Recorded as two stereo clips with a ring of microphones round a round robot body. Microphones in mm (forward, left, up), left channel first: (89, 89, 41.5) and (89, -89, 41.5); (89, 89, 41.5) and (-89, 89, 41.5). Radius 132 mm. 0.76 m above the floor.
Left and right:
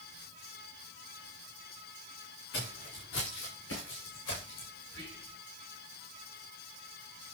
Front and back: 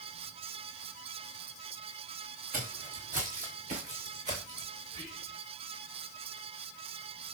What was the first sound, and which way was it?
Footsteps, 140° left.